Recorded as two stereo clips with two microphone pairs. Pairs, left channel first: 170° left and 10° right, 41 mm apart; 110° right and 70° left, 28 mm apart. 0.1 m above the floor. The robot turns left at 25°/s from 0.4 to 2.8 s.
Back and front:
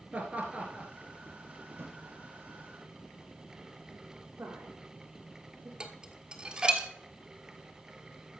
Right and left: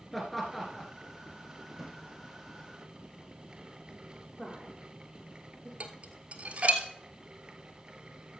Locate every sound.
0.1 s laughter: 25° right, 1.8 m; by 0.9 s 35° right, 1.8 m
1.7 s a drawer: 10° right, 2.5 m; by 2.0 s 20° right, 2.5 m
4.4 s a woman speaking: 35° right, 6.5 m
5.8 s dishes clattering: 50° left, 1.3 m